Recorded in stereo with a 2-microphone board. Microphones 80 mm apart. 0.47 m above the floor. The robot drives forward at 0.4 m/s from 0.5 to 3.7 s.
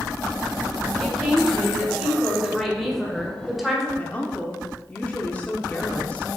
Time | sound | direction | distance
1.0 | a woman speaking | centre (ahead or behind) | 2 m
4.0 | a woman speaking | 20° left (ahead or behind) | 0.8 m